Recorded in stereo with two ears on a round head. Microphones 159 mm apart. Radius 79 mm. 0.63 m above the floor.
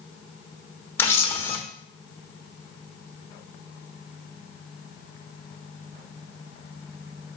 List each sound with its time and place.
1.0 s a camera shutter: 15° left (ahead or behind), 1.0 m